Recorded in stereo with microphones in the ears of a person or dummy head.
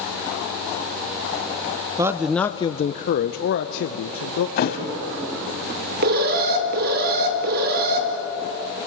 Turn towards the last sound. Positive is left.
turn(degrees=-50)  # may be behind; listen again after turning